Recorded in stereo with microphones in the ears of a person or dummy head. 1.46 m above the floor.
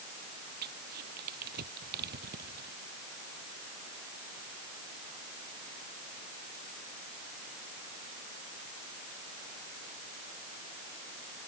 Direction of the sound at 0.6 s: 50° right (ahead or behind).